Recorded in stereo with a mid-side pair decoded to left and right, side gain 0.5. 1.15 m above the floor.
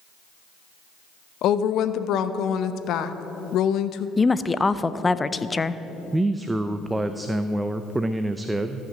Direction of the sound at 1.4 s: 70° left.